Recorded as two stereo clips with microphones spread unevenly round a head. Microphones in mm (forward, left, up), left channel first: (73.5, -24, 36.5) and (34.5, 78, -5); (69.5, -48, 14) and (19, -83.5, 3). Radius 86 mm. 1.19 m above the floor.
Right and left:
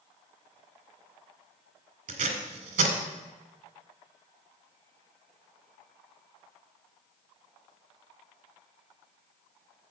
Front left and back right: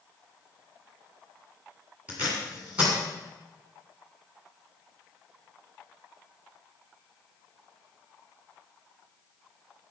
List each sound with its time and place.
2.1 s tape being pulled: 135° left, 1.8 m